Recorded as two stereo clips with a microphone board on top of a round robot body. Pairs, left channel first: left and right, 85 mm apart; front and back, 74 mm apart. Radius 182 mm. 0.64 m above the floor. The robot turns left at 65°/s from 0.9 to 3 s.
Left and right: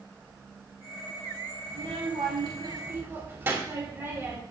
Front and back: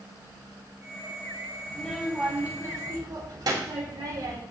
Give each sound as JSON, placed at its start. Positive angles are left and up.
{"t": 1.7, "sound": "a child speaking", "azimuth_deg": -70, "distance_m": 3.5}